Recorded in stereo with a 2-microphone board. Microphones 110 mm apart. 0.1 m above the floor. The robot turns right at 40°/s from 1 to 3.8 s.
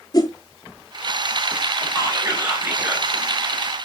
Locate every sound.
0.1 s a whoosh: 40° left (ahead or behind), 0.8 m
1.9 s whispering: 25° right (ahead or behind), 1.5 m; by 3.1 s 15° right (ahead or behind), 1.5 m